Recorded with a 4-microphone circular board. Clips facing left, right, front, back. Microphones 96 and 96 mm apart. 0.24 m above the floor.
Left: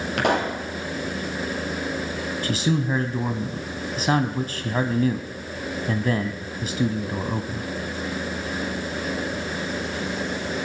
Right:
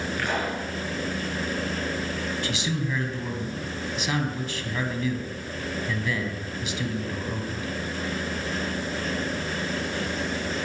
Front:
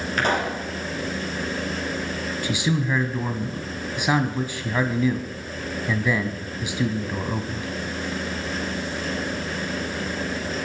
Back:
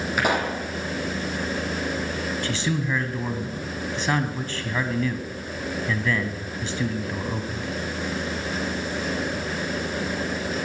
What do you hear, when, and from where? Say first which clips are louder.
0.2 s a pop: left 8 dB, even; 100° left, 5.5 m
2.4 s a man speaking: left 5 dB, front 5 dB; 75° left, 1.8 m